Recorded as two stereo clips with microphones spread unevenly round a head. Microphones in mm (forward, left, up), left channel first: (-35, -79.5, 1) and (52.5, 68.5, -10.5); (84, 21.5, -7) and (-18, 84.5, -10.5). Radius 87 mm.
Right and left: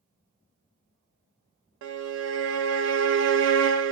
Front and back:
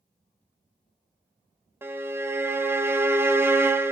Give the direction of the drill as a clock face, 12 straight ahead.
No drill in this recording.